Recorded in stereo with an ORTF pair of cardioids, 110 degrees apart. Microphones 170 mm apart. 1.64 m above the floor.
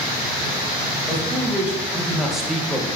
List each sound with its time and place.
1.1 s a man speaking: 10° right, 4 m; by 2.9 s 5° left, 1.5 m